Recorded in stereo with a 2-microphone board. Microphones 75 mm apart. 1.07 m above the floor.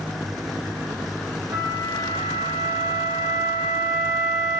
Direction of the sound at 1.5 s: 50° right (ahead or behind).